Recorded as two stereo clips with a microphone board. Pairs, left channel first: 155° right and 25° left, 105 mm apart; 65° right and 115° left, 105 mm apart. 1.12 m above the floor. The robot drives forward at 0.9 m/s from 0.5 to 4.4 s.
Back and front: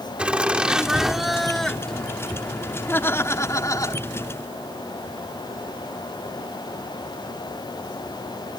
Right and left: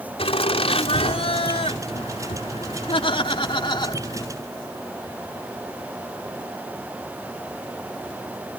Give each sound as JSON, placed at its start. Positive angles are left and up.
{"t": 0.2, "sound": "laughter", "azimuth_deg": -55}